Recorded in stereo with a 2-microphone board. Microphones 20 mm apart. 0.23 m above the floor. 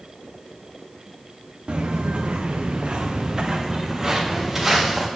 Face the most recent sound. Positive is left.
turn(degrees=-10)  # may be behind; listen again after turning